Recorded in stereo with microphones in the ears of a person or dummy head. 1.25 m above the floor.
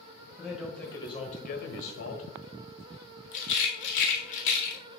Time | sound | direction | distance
0.4 | a man speaking | 5° right (ahead or behind) | 1.8 m
3.3 | a rattle | 75° left (ahead or behind) | 1.8 m